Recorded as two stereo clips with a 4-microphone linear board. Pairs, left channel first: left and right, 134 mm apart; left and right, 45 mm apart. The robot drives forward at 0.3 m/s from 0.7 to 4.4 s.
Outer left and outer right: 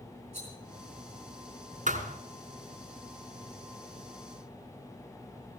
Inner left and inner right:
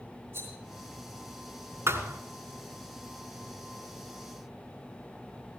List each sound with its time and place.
0.3 s a rattle: 55° right (ahead or behind), 8 m
1.9 s a thud: 80° right, 1.9 m